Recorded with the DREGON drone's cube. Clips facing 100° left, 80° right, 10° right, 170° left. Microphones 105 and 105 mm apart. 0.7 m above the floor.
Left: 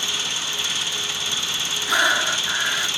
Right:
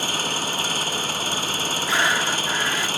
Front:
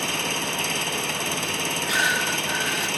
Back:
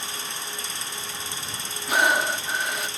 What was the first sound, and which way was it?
An engine running, 35° right.